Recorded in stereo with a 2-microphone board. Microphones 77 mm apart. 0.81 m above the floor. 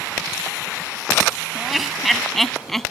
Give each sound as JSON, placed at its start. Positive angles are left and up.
{"t": 1.6, "sound": "laughter", "side_deg": 0}